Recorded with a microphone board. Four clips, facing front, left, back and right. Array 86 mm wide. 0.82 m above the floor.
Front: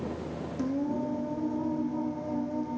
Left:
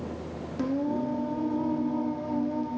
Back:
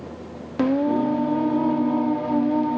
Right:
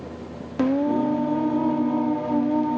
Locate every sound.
0.6 s singing: 145° right, 1.0 m